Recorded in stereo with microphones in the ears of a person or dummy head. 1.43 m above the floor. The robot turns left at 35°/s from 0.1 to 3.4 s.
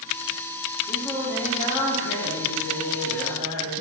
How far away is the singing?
About 0.6 m.